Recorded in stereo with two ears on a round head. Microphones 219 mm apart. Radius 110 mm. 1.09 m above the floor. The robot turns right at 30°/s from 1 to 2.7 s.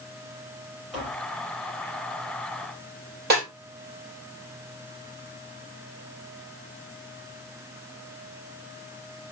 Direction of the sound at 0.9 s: Centre (ahead or behind).